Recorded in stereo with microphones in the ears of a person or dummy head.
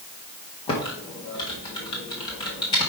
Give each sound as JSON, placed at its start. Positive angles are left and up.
{"t": 0.7, "sound": "typing on a keyboard", "side_deg": 25, "distance_m": 0.9}